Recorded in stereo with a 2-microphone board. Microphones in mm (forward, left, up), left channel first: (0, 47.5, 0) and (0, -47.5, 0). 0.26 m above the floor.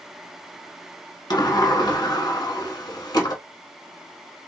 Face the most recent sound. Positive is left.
turn(degrees=45)  # may be behind; listen again after turning